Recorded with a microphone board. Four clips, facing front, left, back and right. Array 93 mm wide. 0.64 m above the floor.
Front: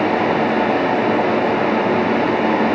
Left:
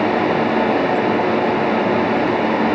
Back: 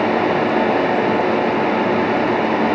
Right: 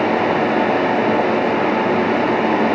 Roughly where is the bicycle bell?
I don't hear a bicycle bell.